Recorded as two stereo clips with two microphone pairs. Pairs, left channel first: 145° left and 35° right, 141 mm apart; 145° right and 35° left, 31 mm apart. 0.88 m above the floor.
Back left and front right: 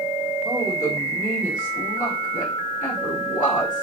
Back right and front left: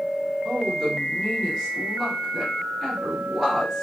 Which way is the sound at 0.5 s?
130° left.